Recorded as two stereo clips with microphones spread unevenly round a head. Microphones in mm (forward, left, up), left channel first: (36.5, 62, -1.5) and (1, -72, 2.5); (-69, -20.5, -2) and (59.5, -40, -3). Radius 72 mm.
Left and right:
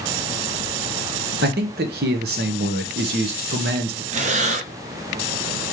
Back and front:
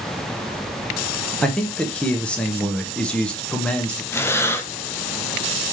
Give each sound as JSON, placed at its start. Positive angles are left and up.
{"t": 1.4, "sound": "a man speaking", "azimuth_deg": -105, "distance_m": 0.9}
{"t": 4.1, "sound": "breathing", "azimuth_deg": -120, "distance_m": 0.5}